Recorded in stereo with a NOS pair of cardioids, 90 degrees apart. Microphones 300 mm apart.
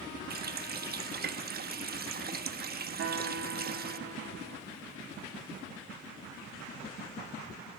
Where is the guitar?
55° right, 2.5 m.